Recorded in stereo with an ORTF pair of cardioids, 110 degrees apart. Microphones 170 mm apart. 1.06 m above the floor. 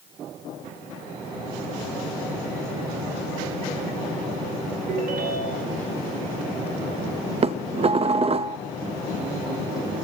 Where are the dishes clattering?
40° right, 0.6 m.